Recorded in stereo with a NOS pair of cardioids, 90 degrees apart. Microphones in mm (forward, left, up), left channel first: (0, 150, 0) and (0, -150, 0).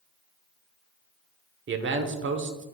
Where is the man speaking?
40° right, 1.1 m.